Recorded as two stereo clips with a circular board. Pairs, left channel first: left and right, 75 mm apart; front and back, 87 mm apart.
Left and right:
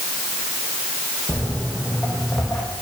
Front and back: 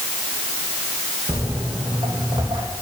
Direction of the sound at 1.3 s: Straight behind.